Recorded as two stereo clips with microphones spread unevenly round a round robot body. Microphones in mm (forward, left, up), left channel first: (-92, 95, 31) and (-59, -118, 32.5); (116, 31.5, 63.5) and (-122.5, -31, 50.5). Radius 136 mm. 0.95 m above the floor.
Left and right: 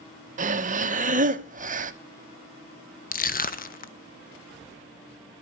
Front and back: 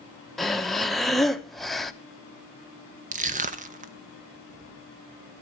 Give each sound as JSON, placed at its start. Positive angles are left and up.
{"t": 0.4, "sound": "breathing", "azimuth_deg": -80, "distance_m": 0.8}
{"t": 3.1, "sound": "crushing", "azimuth_deg": 140, "distance_m": 0.9}